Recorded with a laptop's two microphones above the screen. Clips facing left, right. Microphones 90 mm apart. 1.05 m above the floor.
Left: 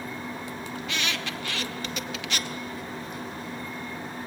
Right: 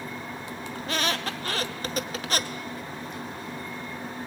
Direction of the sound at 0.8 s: 40° right (ahead or behind).